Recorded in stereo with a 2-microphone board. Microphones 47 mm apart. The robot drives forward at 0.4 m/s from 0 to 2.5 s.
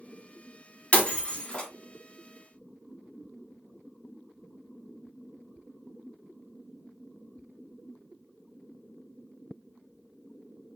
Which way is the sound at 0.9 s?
25° left (ahead or behind).